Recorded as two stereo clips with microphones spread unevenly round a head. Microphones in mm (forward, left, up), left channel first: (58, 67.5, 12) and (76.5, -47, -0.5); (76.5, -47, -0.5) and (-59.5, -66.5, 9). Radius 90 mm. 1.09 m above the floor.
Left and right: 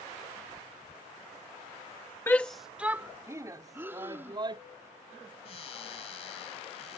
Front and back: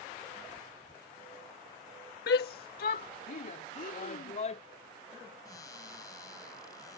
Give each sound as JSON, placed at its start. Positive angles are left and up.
{"t": 2.3, "sound": "a shout", "azimuth_deg": 25}
{"t": 3.7, "sound": "breathing", "azimuth_deg": -10}
{"t": 5.5, "sound": "a cupboard door", "azimuth_deg": 80}